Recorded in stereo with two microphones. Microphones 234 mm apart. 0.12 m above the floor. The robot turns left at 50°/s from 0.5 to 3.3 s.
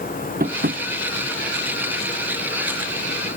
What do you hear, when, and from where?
0.4 s tapping: 40° right (ahead or behind); by 0.8 s 55° right (ahead or behind)